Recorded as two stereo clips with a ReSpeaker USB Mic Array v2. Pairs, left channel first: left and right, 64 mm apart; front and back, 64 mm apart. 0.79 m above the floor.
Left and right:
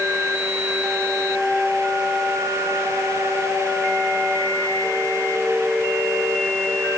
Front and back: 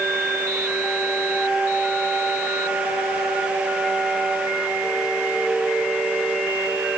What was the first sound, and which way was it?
Only background noise.